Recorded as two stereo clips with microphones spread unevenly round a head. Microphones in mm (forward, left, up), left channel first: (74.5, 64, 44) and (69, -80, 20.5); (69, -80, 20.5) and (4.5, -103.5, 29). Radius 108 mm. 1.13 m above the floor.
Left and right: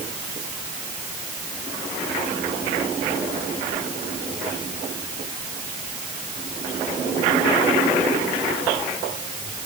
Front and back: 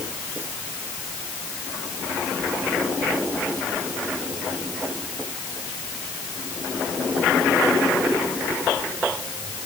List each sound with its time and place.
Only background noise.